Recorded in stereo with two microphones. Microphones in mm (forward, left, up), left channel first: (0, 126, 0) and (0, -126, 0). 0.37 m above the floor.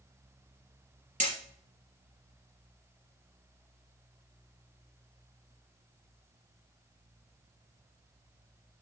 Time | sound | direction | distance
1.2 | hammering | 30° right (ahead or behind) | 3.5 m